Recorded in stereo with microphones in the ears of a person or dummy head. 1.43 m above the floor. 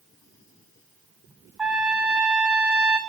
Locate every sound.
1.6 s a trumpet: 5° right (ahead or behind), 0.9 m